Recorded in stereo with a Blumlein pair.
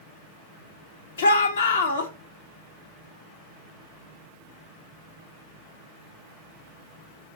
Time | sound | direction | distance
1.2 | a shout | 65° left | 1.5 m